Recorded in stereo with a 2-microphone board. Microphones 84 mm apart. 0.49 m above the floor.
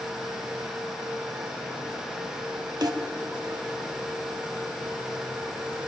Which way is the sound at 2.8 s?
50° right (ahead or behind).